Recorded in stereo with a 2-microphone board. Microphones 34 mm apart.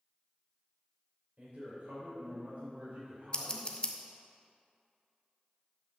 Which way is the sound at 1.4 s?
55° right (ahead or behind).